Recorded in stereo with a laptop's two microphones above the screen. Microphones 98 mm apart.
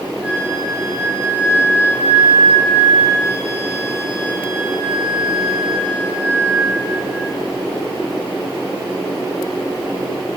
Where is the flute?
15° right (ahead or behind), 8.5 m.